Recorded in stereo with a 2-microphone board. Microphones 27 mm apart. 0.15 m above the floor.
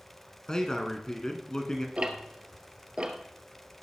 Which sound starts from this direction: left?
A man speaking, at 0.5 s.